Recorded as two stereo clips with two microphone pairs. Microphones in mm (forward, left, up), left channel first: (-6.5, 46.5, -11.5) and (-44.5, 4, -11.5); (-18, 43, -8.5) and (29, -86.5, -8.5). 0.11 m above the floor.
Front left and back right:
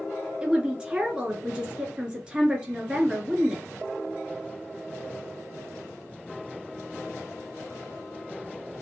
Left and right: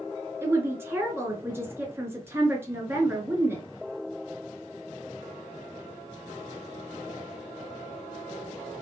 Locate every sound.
0.4 s a woman speaking: 95° right, 1.1 m